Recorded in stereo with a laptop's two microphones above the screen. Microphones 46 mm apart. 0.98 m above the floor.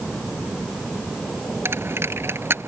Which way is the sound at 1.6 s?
60° right (ahead or behind).